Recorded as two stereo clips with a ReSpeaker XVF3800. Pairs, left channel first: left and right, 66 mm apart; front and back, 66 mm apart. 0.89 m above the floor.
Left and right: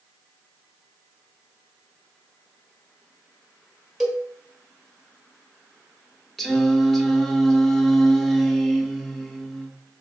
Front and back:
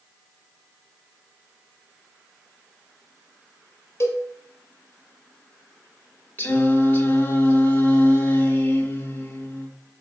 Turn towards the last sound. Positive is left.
turn(degrees=10)